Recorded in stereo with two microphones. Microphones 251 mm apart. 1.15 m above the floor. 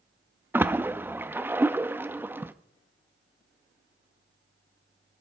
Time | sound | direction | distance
0.5 | a splash | 10° right (ahead or behind) | 0.5 m